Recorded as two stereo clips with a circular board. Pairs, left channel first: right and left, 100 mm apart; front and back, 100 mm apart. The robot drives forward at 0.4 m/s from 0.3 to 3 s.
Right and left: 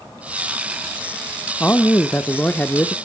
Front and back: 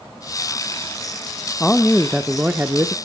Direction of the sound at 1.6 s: 50° right.